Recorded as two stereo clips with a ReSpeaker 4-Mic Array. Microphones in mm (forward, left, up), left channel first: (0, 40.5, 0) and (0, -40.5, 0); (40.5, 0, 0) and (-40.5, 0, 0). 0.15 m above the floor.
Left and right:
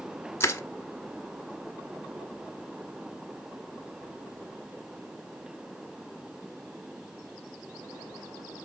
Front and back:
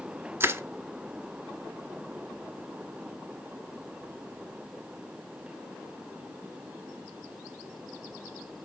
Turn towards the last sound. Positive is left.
turn(degrees=130)